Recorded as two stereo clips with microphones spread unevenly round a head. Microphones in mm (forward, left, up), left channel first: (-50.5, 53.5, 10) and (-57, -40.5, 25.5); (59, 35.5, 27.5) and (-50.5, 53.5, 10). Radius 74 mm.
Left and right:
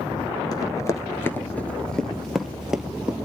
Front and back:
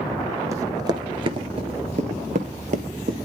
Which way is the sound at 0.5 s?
115° left.